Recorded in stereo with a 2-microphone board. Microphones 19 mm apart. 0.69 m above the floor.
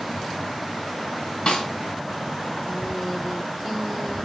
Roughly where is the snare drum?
Left.